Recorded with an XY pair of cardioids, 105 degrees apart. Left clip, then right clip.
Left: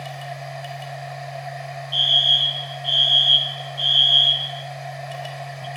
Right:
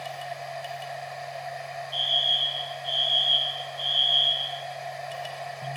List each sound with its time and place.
0.0 s a machine running: 15° left, 4.5 m
1.9 s a fire alarm: 55° left, 3 m